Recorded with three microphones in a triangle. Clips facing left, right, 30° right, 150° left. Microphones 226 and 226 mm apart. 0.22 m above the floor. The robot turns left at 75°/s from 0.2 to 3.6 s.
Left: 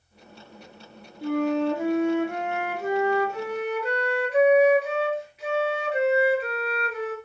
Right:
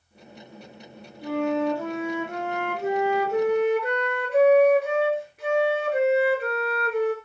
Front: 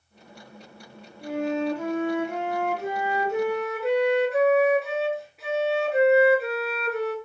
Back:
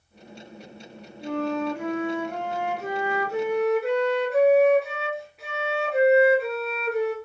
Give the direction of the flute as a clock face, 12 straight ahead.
10 o'clock.